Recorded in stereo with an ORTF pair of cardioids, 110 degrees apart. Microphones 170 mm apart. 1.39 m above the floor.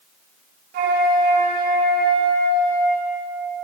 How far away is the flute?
About 2.0 m.